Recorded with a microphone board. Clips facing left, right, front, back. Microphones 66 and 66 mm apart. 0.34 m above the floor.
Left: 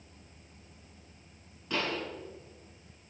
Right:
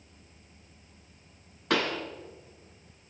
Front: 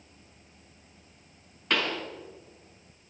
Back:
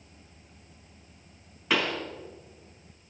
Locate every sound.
1.7 s a pop: 95° right, 2.5 m